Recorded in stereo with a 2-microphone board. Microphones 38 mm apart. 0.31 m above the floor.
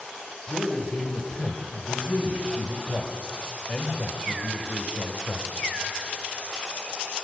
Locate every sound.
0.5 s a man speaking: 30° left (ahead or behind), 1.1 m